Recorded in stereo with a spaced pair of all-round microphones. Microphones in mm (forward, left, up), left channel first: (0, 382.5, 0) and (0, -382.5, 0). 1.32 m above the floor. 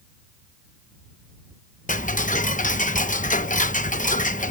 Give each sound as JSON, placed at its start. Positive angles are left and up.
{"t": 1.9, "sound": "ticking", "side_deg": 10}